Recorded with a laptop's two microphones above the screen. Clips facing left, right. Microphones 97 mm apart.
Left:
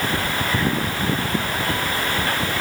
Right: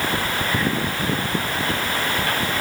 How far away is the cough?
I don't hear a cough.